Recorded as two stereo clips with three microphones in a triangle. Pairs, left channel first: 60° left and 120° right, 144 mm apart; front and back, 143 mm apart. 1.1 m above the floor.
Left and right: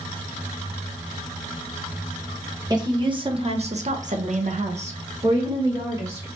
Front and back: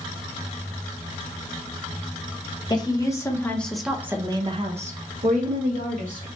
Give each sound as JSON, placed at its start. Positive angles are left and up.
{"t": 2.7, "sound": "a woman speaking", "azimuth_deg": -60, "distance_m": 1.1}